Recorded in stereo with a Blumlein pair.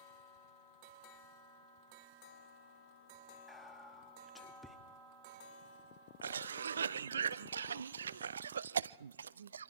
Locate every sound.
3.5 s whispering: 5° left, 1.7 m
6.2 s a cough: 70° right, 0.6 m